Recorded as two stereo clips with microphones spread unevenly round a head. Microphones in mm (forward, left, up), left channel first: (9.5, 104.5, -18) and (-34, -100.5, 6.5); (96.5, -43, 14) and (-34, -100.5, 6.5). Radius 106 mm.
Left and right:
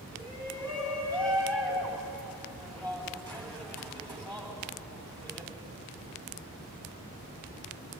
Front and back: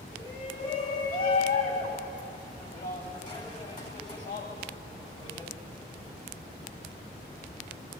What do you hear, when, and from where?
0.1 s a shout: 10° right, 8.5 m